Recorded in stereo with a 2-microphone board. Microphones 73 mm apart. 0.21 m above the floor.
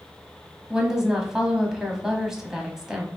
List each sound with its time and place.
0.7 s a woman speaking: 5° right (ahead or behind), 1.0 m